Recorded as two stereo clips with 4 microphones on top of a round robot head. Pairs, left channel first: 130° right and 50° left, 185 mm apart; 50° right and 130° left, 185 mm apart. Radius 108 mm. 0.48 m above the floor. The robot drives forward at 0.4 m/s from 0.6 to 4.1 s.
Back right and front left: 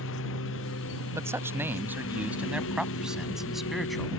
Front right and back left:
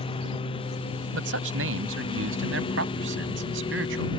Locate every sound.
0.0 s a lawn mower: 115° right
1.1 s a man speaking: 125° left; by 4.1 s 140° left